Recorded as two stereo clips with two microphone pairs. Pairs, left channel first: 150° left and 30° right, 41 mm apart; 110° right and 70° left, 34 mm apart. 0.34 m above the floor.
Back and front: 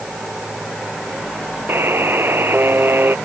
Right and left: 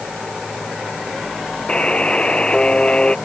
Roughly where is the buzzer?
Ahead right.